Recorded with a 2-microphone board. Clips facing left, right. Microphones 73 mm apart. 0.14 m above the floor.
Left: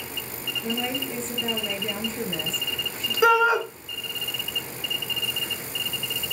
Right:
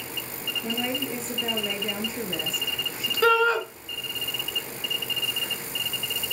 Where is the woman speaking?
10° right (ahead or behind), 2.5 m.